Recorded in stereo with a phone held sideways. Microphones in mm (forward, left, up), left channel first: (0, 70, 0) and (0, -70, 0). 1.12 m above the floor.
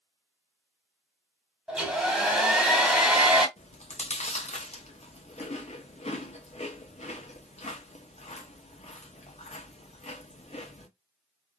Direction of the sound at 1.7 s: 5° right (ahead or behind).